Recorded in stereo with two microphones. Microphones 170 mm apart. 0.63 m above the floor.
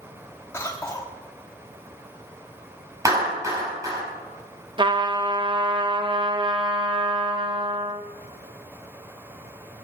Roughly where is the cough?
Centre.